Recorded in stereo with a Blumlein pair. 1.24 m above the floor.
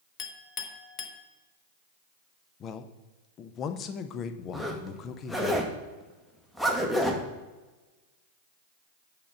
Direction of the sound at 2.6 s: 30° left.